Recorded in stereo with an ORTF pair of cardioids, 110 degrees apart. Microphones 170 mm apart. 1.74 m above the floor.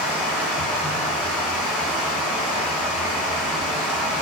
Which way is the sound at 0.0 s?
5° left.